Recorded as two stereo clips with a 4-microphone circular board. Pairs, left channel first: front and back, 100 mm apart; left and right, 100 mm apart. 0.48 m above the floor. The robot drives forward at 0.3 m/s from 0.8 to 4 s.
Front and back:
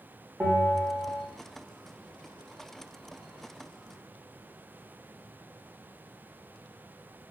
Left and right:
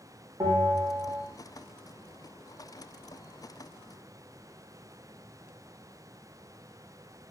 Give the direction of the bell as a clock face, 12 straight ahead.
4 o'clock.